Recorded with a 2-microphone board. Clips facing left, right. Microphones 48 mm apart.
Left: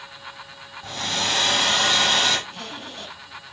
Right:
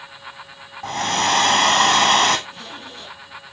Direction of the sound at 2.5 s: 50° left (ahead or behind).